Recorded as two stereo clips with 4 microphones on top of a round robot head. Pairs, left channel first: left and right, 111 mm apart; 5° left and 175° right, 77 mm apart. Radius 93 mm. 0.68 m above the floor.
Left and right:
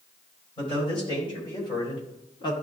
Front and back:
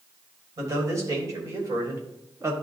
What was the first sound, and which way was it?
A man speaking, 140° left.